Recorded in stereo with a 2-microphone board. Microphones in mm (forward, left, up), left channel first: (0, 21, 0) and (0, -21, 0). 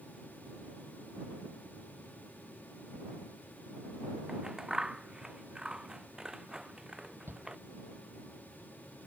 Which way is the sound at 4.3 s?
15° right (ahead or behind).